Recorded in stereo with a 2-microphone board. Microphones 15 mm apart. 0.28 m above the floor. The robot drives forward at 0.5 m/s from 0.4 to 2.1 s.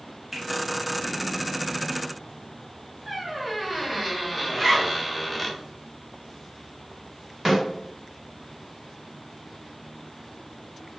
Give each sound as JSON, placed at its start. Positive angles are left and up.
{"t": 0.3, "sound": "a finger snap", "side_deg": -15, "distance_m": 0.9}
{"t": 3.1, "sound": "a squeak", "side_deg": 5, "distance_m": 0.6}
{"t": 4.5, "sound": "a zipper", "side_deg": 0, "distance_m": 1.1}
{"t": 7.5, "sound": "a snare drum", "side_deg": -10, "distance_m": 1.6}